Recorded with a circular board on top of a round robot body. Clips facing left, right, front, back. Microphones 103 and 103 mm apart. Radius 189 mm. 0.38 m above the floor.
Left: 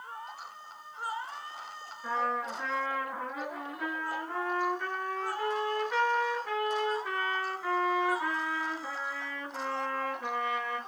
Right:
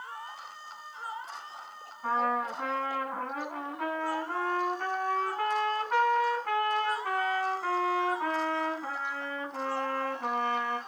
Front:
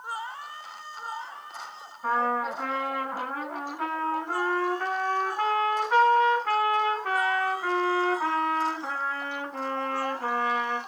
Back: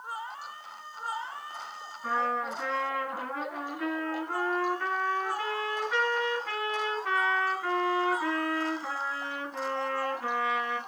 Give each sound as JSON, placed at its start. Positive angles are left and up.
{"t": 2.0, "sound": "a trumpet", "azimuth_deg": -45, "distance_m": 2.5}